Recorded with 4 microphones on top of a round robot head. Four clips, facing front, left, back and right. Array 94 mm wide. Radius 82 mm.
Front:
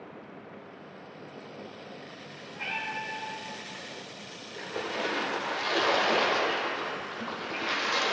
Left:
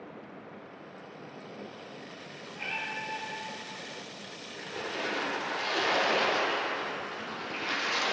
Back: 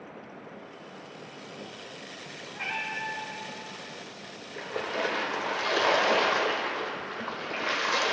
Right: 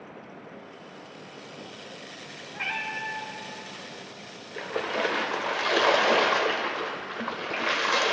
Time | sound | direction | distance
2.5 | a cat meowing | 110° right | 1.1 m
4.6 | a splash | 100° right | 1.0 m